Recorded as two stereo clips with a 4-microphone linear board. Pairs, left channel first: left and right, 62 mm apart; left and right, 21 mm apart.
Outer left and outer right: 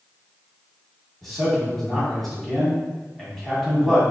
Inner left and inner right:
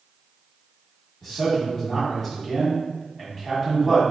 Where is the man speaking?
Centre (ahead or behind), 1.5 m.